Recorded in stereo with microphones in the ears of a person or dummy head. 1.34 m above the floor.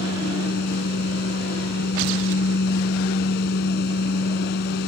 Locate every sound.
0.0 s a fan: 65° left (ahead or behind)